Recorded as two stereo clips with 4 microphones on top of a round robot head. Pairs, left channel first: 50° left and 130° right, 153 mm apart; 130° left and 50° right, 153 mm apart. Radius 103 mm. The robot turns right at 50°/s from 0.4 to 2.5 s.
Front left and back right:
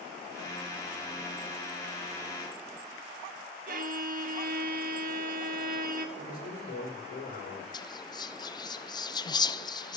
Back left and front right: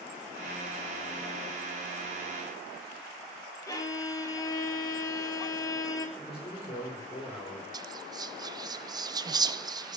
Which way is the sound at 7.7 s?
Straight ahead.